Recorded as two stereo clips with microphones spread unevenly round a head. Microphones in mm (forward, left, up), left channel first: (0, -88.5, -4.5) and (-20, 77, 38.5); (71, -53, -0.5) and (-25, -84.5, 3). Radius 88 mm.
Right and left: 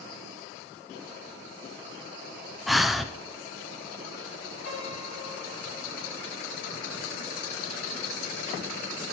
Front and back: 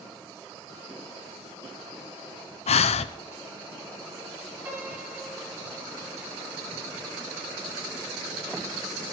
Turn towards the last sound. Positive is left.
turn(degrees=-95)